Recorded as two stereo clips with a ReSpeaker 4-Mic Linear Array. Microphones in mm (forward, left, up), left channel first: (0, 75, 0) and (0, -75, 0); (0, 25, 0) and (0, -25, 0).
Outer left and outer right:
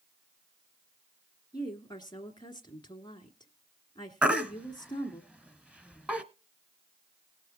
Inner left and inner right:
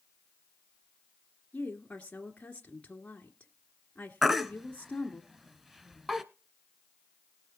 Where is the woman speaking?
30° left (ahead or behind), 2.5 m.